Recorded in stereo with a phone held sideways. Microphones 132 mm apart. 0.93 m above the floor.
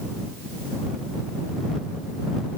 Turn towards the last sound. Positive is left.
No sound to turn to.